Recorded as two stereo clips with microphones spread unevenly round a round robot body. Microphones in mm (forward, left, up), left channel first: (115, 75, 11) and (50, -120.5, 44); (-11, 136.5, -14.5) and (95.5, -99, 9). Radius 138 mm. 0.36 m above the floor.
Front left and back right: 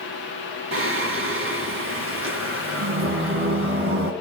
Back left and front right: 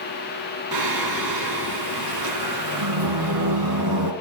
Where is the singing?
90° right, 3 m.